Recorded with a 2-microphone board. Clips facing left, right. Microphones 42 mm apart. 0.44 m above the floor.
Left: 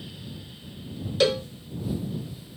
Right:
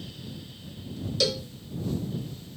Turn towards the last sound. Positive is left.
turn(degrees=30)  # may be behind; listen again after turning